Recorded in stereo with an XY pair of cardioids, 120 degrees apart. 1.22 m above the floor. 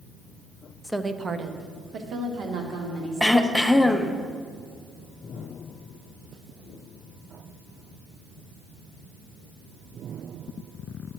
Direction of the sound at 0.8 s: 10° left.